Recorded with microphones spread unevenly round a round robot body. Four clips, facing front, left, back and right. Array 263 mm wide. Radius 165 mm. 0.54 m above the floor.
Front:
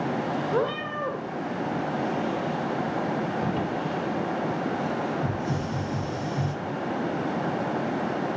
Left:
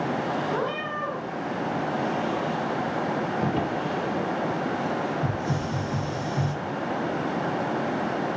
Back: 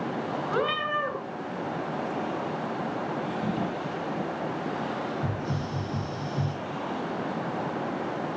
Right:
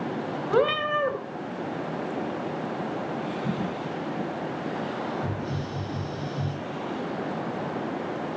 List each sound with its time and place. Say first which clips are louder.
0.5 s a cat meowing: right 5 dB, back 2 dB; 80° right, 2.5 m
3.4 s a drawer: left 4 dB, front 2 dB; 95° left, 6 m
5.2 s a hiss: left 4 dB, front 3 dB; 130° left, 4.5 m